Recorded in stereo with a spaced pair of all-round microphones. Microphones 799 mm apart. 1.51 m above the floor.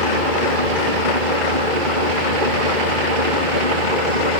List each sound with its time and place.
0.0 s an engine running: 75° right (ahead or behind)